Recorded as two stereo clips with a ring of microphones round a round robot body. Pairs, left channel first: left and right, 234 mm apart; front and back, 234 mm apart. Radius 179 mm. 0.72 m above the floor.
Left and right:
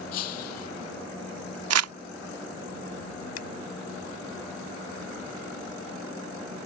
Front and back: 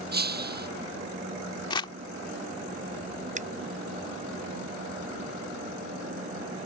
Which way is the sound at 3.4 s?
120° left.